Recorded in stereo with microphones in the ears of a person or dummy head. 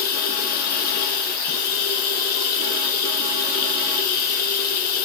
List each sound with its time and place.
0.0 s running water: 50° left (ahead or behind), 1.5 m